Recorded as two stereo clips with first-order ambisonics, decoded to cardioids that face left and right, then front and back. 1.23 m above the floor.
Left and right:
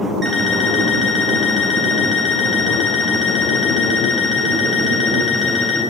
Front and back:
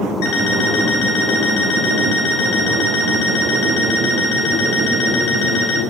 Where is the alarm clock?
15° right, 2.5 m.